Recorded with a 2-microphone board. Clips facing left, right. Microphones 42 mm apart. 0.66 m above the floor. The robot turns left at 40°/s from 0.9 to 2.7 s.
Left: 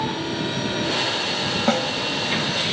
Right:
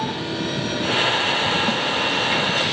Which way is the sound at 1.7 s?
70° left (ahead or behind).